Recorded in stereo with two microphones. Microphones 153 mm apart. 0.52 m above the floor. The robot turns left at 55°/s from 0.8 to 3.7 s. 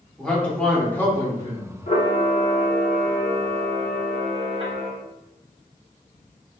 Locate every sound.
0.2 s a man speaking: 165° left, 0.8 m; by 1.7 s 115° left, 0.8 m
1.9 s a camera shutter: 55° left, 0.8 m; by 4.9 s 45° right, 0.8 m